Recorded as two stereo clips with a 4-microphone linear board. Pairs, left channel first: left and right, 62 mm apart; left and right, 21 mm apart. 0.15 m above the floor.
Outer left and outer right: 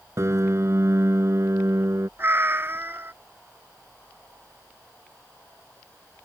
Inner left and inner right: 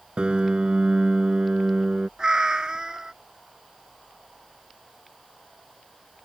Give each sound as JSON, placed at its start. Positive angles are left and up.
{"t": 0.2, "sound": "a piano", "side_deg": -55}
{"t": 2.2, "sound": "a cat meowing", "side_deg": -40}